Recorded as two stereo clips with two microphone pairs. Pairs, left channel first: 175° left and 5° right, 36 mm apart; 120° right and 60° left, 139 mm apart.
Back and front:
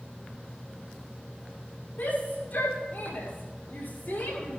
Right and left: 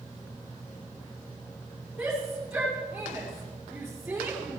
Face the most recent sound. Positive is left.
turn(degrees=145)